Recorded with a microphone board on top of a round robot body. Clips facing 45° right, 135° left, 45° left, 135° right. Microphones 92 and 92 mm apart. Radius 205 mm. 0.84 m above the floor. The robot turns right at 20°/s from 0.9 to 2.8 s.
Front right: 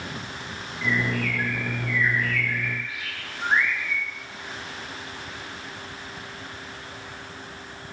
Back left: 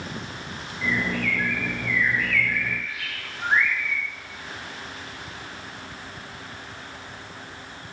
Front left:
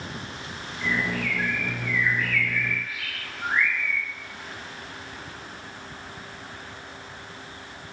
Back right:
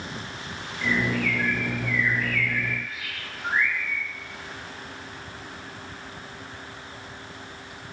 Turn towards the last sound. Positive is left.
turn(degrees=35)